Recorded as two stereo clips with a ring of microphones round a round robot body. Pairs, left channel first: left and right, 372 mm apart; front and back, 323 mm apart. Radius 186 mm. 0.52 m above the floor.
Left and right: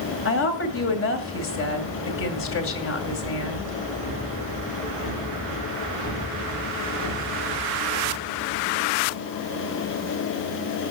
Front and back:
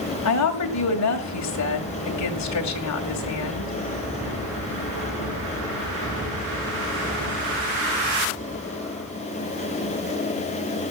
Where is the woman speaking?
35° left, 2.5 m.